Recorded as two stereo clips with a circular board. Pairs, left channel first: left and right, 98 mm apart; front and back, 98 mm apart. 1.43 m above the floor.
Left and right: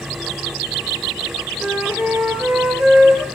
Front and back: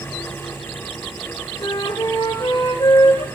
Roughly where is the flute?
Ahead.